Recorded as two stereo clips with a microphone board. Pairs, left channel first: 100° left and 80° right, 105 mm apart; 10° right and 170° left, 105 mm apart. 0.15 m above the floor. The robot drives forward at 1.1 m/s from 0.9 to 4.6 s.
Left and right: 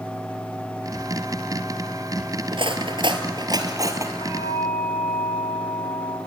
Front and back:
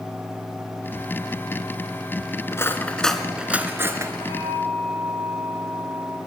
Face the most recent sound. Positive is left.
turn(degrees=135)